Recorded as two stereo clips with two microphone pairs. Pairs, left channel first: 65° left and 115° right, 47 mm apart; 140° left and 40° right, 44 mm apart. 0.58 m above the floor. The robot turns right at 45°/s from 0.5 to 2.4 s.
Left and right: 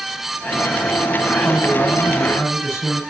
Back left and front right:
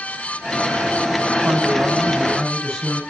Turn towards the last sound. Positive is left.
turn(degrees=55)